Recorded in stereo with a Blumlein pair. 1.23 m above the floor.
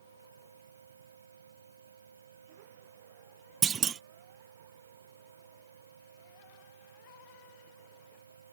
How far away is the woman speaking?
I don't hear a woman speaking.